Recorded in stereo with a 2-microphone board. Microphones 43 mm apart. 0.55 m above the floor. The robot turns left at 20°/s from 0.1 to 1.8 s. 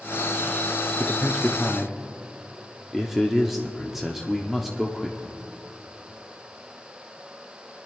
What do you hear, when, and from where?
1.0 s a man speaking: 15° right (ahead or behind), 0.8 m; by 5.4 s 5° right (ahead or behind), 0.8 m